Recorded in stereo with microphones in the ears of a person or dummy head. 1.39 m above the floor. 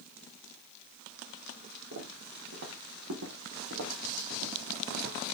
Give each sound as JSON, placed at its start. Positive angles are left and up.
{"t": 1.9, "sound": "footsteps", "side_deg": -75, "distance_m": 5.5}